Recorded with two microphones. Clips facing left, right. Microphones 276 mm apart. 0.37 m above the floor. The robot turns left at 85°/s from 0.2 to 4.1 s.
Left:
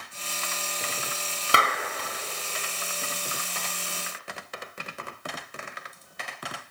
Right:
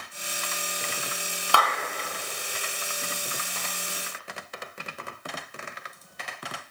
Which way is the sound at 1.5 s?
20° left (ahead or behind).